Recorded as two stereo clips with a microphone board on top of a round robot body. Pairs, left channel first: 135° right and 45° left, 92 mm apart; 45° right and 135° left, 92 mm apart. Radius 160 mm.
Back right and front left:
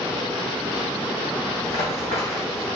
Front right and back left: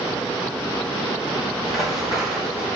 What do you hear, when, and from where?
1.6 s running footsteps: 130° right, 1.8 m; by 2.7 s 145° right, 2.5 m